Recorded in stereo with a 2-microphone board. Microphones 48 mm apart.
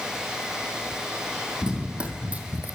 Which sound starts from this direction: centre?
Running footsteps, at 1.6 s.